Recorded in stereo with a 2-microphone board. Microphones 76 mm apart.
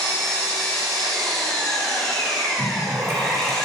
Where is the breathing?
25° right (ahead or behind), 3 m.